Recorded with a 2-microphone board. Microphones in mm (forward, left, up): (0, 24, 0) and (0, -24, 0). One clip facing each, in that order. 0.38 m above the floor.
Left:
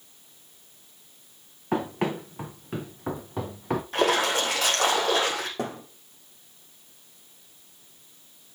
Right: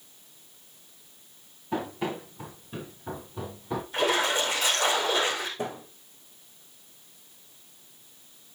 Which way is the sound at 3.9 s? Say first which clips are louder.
Left 2 dB; 65° left (ahead or behind).